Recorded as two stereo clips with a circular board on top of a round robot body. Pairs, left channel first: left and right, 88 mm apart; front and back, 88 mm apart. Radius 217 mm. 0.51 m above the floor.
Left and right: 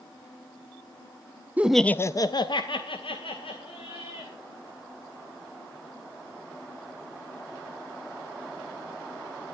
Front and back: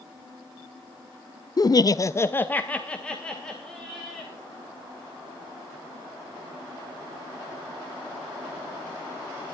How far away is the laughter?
About 0.8 m.